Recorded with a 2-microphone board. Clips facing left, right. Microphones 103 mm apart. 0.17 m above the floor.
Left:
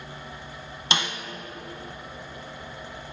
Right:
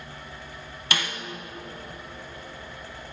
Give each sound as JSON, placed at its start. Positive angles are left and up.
{"t": 0.9, "sound": "a snare drum", "side_deg": 25, "distance_m": 0.6}